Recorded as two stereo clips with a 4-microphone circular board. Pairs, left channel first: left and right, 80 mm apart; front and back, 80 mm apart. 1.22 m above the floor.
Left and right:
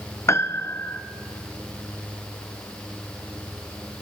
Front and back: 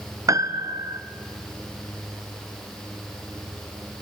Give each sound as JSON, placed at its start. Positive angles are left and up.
{"t": 0.3, "sound": "a piano", "azimuth_deg": 140, "distance_m": 0.9}